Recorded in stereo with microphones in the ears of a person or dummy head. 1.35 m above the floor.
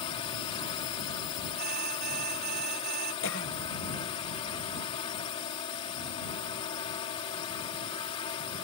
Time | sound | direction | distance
0.0 | a drone | 25° left (ahead or behind) | ?
1.6 | an alarm | 50° right (ahead or behind) | ?
3.2 | a cough | 60° left (ahead or behind) | ?